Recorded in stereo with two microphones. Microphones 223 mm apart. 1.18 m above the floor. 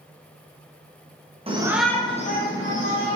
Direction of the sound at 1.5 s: 25° right (ahead or behind).